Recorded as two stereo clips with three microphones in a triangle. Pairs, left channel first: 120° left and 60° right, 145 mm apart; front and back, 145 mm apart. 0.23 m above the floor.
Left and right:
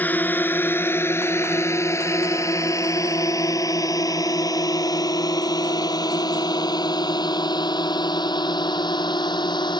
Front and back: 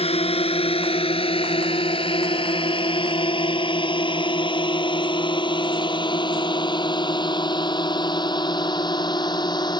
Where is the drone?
45° left; by 9.8 s 60° left.